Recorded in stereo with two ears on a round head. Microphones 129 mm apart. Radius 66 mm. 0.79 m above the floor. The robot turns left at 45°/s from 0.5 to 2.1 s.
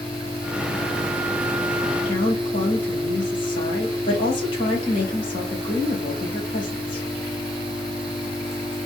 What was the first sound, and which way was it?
A woman speaking, 45° left (ahead or behind).